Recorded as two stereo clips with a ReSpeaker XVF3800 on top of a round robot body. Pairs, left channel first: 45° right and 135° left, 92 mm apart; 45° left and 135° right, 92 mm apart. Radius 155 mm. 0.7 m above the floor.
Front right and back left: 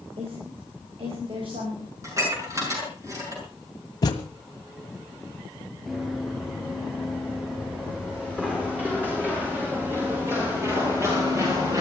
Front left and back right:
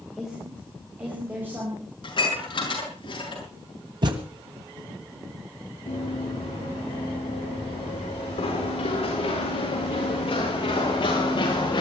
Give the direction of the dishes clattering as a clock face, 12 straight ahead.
9 o'clock.